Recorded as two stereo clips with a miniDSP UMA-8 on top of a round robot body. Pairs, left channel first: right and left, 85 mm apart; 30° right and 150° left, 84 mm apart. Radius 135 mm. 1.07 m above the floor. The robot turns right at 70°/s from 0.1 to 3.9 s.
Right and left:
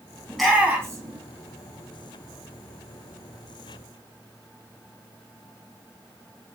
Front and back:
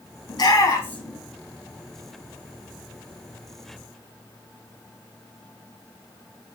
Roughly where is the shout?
Ahead.